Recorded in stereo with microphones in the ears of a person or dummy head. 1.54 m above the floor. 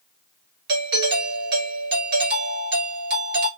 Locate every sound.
0.7 s a doorbell: 50° right (ahead or behind), 1.9 m